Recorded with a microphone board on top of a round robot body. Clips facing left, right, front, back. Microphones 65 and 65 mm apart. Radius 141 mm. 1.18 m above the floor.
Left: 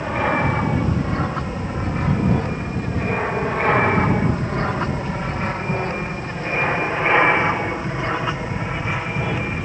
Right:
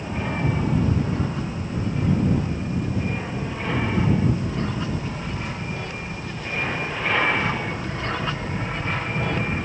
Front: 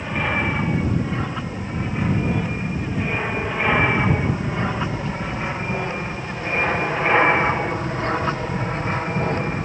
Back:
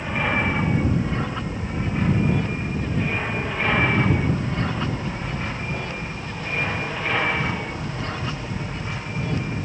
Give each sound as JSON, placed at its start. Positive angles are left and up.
{"t": 0.0, "sound": "an aircraft", "azimuth_deg": 90}